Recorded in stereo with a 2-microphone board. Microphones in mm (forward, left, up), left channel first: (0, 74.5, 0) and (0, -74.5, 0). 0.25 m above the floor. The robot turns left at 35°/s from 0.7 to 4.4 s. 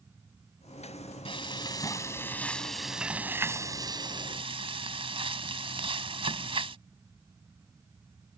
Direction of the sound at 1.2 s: 55° left.